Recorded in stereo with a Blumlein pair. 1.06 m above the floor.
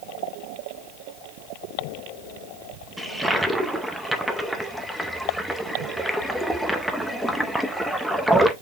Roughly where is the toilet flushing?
Ahead.